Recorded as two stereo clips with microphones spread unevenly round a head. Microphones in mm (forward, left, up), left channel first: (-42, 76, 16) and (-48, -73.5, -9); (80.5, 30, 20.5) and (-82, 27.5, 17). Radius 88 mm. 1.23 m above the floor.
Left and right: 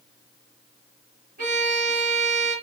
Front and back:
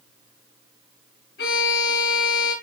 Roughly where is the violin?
Ahead right.